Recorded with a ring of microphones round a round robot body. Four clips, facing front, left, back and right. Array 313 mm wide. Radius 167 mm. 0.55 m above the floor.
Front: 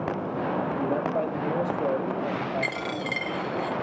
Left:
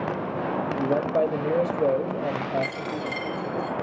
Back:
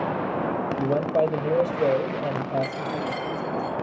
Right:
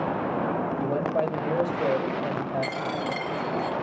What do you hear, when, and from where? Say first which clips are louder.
0.8 s a man speaking: left 5 dB, back 7 dB; 135° left, 1.4 m
2.6 s a dropped coin: right 1 dB, back 2 dB; 5° right, 3.5 m